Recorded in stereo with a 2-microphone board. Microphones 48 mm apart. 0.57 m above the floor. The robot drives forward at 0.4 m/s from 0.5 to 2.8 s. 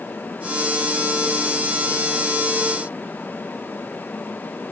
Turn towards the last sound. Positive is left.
No sound to turn to.